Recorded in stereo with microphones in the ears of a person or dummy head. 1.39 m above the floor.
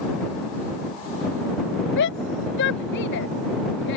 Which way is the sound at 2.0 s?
65° left (ahead or behind).